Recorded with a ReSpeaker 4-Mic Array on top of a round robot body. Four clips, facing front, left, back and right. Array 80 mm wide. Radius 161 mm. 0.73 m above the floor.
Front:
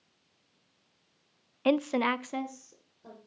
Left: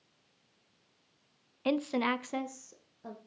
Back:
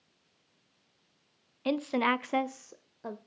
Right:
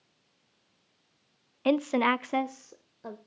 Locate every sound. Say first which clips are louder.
1.6 s a woman speaking: right 5 dB, front 2 dB; 25° right, 0.6 m; by 3.2 s 160° right, 1.0 m